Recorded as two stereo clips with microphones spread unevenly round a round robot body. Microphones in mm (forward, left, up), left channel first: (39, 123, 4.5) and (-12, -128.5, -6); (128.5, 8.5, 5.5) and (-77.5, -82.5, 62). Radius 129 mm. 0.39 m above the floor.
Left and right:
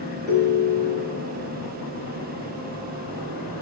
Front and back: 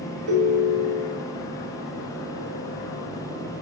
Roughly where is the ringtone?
Behind.